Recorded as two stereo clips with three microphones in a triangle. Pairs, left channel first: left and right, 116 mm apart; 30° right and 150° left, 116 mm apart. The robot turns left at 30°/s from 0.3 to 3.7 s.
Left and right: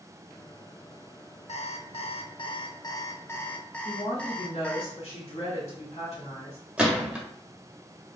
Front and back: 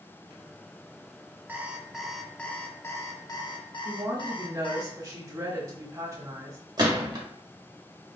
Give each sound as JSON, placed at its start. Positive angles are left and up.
{"t": 1.5, "sound": "an alarm clock", "azimuth_deg": 75, "distance_m": 0.7}
{"t": 3.9, "sound": "a woman speaking", "azimuth_deg": 95, "distance_m": 2.0}
{"t": 6.8, "sound": "a gunshot", "azimuth_deg": -170, "distance_m": 1.3}